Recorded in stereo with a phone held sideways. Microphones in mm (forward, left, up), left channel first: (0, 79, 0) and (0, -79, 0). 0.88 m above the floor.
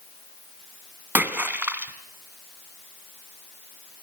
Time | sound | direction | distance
1.1 | a splash | 10° right (ahead or behind) | 1.6 m